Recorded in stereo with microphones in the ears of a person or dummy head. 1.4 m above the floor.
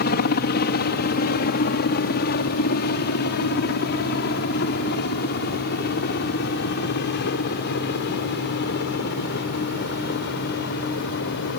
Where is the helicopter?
50° left (ahead or behind); by 11.6 s 60° left (ahead or behind).